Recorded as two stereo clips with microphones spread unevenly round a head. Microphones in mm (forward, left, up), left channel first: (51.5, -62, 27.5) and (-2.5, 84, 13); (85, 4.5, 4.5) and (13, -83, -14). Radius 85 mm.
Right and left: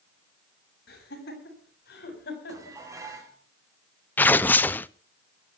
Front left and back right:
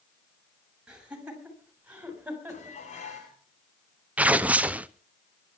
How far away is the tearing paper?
About 0.5 m.